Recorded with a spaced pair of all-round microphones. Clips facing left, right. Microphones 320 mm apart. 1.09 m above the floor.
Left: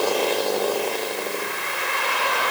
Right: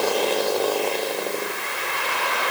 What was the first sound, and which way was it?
Only background noise.